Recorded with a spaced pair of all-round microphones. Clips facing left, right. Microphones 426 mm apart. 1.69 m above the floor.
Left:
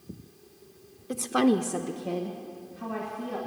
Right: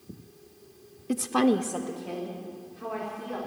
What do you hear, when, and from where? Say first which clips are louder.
1.1 s a woman speaking: even; 45° right (ahead or behind), 0.6 m; by 3.4 s 65° left (ahead or behind), 3 m